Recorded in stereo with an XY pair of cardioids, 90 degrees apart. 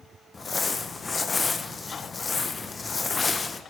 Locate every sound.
0.3 s crumpling: 35° left, 1.1 m